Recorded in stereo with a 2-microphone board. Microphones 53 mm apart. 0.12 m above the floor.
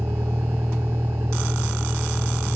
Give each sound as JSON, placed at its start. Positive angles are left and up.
{"t": 0.0, "sound": "a vehicle", "side_deg": -55}